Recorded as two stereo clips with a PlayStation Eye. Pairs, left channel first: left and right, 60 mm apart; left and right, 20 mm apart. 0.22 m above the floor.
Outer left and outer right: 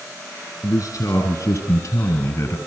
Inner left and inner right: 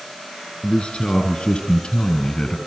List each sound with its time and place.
0.6 s a man speaking: 70° left (ahead or behind), 3 m; by 2.6 s 50° left (ahead or behind), 1.7 m